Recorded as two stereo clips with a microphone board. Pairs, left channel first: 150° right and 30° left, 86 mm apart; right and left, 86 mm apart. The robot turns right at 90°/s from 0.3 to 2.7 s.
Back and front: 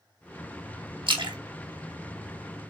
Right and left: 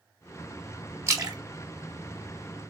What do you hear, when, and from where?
1.1 s a splash: 35° left, 1.4 m; by 2.7 s straight behind, 1.4 m